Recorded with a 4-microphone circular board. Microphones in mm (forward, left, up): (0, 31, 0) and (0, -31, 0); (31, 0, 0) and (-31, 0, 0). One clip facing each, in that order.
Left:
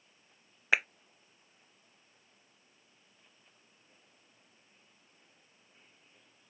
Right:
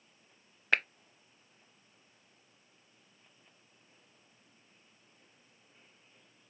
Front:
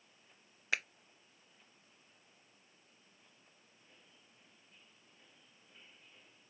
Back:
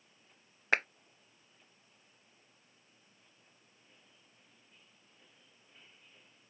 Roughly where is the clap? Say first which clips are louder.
Left 1 dB, back 7 dB; behind.